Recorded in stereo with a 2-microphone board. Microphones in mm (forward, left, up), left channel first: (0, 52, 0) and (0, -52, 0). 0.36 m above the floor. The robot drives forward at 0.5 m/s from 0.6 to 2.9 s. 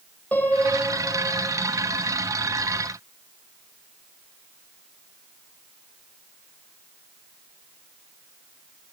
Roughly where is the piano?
Centre.